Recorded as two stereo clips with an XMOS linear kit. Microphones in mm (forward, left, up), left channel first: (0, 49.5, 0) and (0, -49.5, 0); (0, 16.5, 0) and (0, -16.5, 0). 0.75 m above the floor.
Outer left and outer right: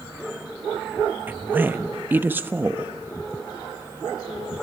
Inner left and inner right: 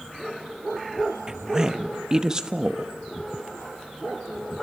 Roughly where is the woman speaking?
Right.